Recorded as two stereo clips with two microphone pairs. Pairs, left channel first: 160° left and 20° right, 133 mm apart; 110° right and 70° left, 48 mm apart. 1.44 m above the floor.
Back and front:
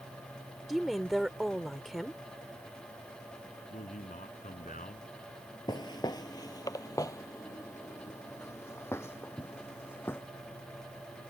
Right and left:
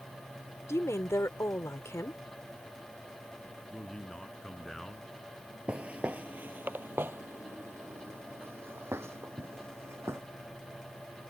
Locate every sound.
0.7 s a woman speaking: 110° right
3.7 s a man speaking: 165° left
5.7 s footsteps: 120° left; by 10.2 s 85° left